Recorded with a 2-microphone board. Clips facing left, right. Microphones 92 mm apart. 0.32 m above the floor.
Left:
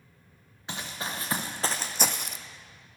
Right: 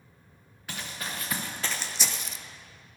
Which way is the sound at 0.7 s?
25° left (ahead or behind).